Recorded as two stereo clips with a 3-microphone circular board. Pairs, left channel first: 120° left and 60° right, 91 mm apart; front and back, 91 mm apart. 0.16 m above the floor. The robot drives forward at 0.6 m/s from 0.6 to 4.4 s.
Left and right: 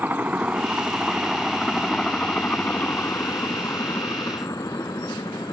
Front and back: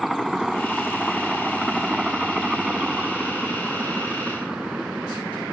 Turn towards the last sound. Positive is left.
turn(degrees=100)